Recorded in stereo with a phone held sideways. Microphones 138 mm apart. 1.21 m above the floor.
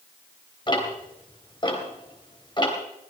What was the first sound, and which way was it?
Ticking, 35° left (ahead or behind).